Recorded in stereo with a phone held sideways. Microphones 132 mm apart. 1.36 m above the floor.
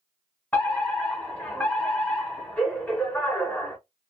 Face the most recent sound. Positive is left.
turn(degrees=10)  # may be behind; listen again after turning